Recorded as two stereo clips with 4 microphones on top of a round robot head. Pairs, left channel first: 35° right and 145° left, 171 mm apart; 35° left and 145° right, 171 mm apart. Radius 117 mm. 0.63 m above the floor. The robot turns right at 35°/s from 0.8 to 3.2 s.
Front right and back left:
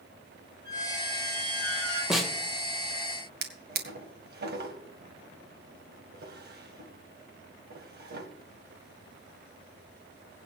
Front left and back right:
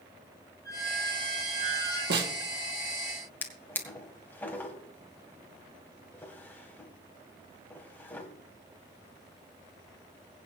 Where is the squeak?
105° left, 6.5 m; by 2.0 s 150° left, 6.5 m.